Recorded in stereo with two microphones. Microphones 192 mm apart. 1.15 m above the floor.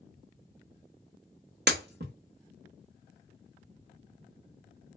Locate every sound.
1.7 s breaking glass: 60° right (ahead or behind), 0.8 m